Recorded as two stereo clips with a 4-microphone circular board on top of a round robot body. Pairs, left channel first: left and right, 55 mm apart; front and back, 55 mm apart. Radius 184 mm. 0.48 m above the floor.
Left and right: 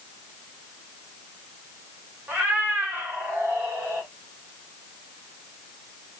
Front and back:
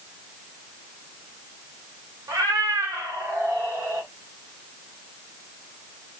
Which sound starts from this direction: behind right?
A cat meowing, at 2.3 s.